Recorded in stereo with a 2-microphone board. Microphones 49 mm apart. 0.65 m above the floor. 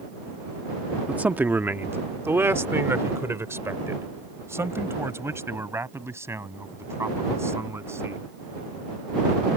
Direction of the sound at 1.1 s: 30° right (ahead or behind).